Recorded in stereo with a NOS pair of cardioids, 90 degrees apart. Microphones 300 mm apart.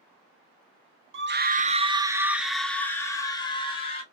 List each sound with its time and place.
1.1 s a scream: 45° right, 0.8 m; by 4.0 s 20° left, 1.8 m